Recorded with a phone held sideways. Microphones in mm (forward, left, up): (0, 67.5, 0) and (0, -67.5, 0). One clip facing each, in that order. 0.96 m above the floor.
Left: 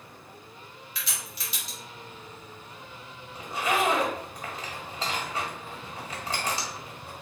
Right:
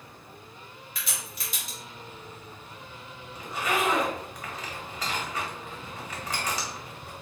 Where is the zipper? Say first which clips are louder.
Left 2 dB; 30° left (ahead or behind), 1.6 m.